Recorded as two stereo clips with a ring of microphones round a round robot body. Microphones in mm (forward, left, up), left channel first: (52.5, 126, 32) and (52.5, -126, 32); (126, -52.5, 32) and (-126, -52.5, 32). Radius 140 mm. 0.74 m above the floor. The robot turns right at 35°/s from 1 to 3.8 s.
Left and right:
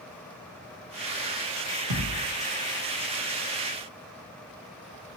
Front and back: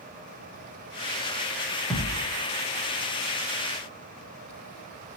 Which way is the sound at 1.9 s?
90° right.